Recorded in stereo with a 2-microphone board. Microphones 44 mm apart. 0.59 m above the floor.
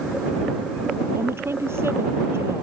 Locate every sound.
1.1 s a woman speaking: 70° right (ahead or behind)